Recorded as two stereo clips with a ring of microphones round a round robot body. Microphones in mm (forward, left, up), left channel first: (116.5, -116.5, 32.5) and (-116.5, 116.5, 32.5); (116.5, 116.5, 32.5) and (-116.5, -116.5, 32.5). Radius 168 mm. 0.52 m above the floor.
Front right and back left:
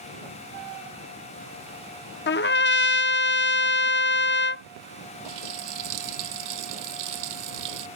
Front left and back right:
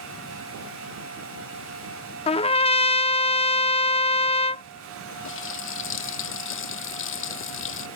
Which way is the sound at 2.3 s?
15° right.